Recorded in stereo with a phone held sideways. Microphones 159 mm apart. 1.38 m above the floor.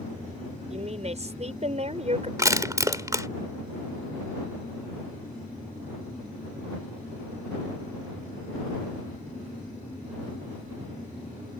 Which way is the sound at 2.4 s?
25° right (ahead or behind).